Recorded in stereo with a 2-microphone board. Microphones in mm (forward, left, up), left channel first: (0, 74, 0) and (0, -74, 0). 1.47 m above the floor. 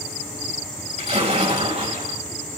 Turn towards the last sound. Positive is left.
turn(degrees=-45)  # may be behind; listen again after turning